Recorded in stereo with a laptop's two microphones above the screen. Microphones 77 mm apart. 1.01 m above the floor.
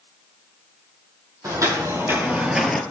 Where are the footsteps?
45° right (ahead or behind), 1.8 m; by 2.8 s 10° left (ahead or behind), 1.0 m.